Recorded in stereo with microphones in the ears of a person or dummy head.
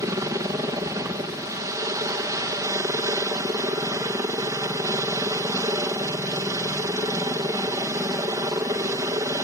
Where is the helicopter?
15° right (ahead or behind).